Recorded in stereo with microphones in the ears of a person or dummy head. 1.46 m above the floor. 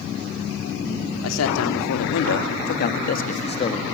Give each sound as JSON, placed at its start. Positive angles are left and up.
{"t": 1.2, "sound": "a man speaking", "side_deg": 85, "distance_m": 3.5}